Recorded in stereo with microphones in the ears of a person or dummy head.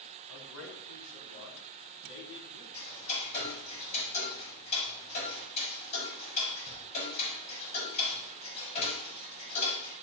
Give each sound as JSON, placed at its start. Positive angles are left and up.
{"t": 0.3, "sound": "a man speaking", "side_deg": 85, "distance_m": 4.0}
{"t": 2.7, "sound": "ticking", "side_deg": 40, "distance_m": 5.0}